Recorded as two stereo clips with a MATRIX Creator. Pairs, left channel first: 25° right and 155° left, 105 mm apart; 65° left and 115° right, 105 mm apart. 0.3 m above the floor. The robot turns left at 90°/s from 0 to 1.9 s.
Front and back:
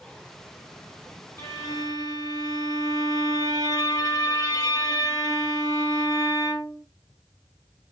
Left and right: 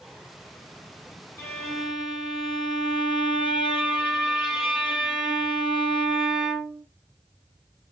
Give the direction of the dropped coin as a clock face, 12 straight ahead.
No dropped coin in this recording.